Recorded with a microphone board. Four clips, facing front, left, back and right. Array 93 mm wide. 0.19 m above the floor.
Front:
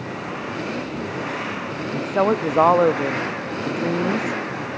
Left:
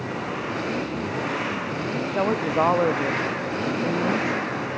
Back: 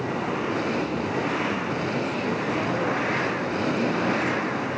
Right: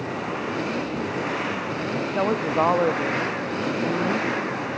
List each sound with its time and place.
1.9 s a woman speaking: 5° left